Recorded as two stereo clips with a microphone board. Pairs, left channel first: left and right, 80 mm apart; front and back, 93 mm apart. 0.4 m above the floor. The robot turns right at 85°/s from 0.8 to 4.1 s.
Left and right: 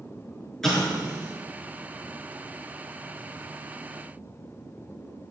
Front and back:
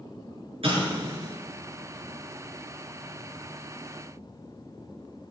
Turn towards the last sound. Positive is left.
turn(degrees=95)